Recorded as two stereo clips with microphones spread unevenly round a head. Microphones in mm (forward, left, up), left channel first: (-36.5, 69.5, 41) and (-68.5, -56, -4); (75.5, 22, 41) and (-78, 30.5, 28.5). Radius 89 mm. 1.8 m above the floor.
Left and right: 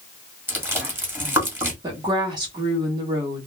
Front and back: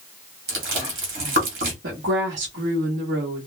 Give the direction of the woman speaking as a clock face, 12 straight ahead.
6 o'clock.